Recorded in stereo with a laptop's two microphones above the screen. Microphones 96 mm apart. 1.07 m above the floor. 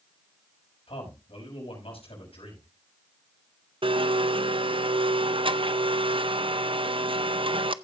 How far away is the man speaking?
About 6 m.